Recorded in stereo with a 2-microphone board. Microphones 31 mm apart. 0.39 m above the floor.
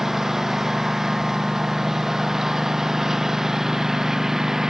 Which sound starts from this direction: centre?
A lawn mower, at 0.0 s.